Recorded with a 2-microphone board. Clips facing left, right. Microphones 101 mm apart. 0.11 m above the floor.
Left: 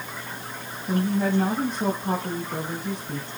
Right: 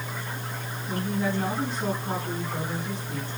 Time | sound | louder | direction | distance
0.9 | a woman speaking | left 5 dB | 50° left (ahead or behind) | 4.5 m